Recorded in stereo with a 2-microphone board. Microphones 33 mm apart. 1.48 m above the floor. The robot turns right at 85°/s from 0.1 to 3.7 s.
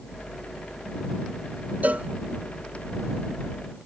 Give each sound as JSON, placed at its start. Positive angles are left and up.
{"t": 1.8, "sound": "a cowbell", "side_deg": -60}